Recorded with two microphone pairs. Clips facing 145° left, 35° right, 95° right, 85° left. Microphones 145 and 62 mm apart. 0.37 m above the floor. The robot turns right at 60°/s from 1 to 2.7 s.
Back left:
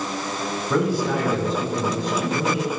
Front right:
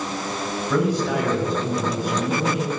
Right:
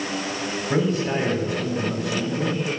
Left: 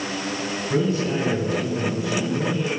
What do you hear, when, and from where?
0.7 s a man speaking: 130° right, 2.5 m; by 2.7 s 30° right, 2.5 m